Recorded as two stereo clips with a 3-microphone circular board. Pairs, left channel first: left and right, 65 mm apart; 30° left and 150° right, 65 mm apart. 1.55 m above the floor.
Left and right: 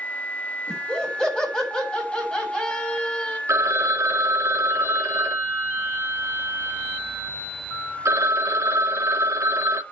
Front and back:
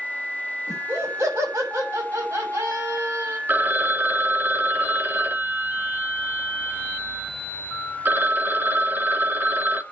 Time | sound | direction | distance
0.7 | laughter | 170° left | 7.5 m
3.5 | a phone ringing | 105° right | 0.9 m